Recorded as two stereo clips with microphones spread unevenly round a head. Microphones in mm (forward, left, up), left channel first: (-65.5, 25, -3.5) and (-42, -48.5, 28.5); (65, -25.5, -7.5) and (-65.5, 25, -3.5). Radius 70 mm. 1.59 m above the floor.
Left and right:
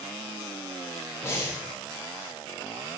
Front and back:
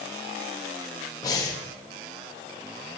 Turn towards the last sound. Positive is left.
turn(degrees=45)